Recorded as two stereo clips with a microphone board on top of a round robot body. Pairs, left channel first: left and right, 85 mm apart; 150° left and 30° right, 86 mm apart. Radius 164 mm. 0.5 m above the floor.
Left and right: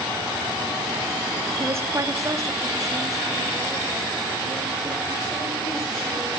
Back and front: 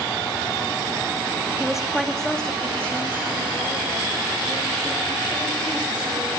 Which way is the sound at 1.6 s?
105° right.